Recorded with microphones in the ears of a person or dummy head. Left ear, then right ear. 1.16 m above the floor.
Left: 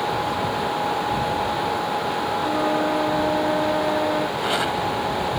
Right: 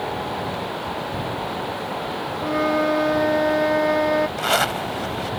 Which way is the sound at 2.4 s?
70° right (ahead or behind).